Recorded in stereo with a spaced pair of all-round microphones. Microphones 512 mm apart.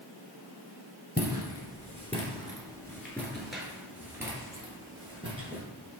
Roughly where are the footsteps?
Centre.